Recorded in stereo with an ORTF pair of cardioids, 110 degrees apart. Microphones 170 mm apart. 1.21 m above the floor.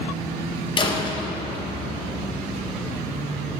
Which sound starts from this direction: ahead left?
A door slam, at 0.8 s.